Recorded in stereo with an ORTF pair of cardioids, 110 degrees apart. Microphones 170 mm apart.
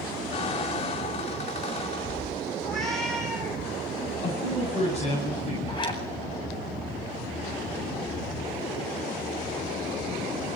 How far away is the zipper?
About 8.5 m.